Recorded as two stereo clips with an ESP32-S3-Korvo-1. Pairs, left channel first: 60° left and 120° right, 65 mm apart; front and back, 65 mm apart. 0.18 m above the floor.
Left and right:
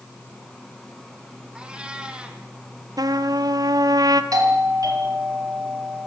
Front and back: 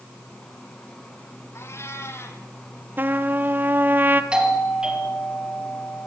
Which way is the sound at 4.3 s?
105° right.